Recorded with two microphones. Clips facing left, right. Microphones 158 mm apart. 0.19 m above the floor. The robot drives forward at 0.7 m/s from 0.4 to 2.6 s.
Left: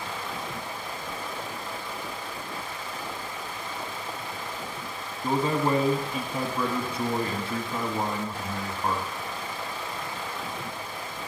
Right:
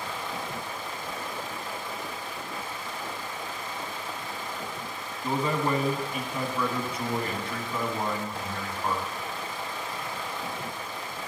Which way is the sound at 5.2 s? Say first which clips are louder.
Left 2 dB; 30° left (ahead or behind).